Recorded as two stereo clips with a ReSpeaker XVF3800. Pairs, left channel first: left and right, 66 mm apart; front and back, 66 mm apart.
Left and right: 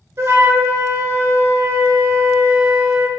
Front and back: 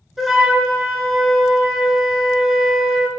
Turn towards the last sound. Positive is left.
turn(degrees=-95)